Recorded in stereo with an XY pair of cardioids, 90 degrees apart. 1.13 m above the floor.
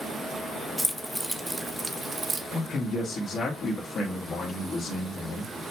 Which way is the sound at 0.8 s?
10° left.